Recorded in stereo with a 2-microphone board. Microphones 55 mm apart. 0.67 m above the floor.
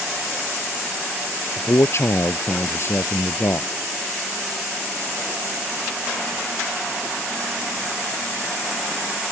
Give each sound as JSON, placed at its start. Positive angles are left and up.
{"t": 1.6, "sound": "a man speaking", "side_deg": 50}